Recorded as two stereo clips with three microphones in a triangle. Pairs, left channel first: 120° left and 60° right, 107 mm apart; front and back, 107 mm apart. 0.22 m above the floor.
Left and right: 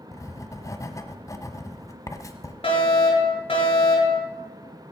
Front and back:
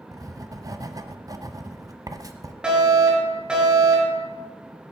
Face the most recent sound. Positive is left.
turn(degrees=100)